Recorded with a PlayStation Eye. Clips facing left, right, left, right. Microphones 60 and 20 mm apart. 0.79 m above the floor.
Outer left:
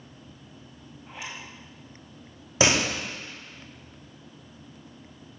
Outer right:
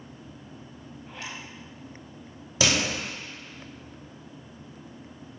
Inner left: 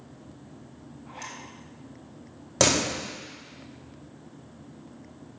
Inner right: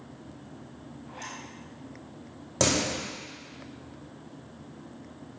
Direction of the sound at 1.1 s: 15° left (ahead or behind).